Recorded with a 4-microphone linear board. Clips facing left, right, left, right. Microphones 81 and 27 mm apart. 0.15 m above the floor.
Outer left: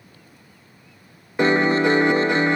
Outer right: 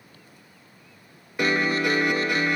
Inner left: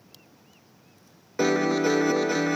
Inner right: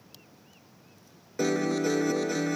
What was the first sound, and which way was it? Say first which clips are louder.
A piano: outer left 6 dB, inner left 4 dB; 30° left (ahead or behind).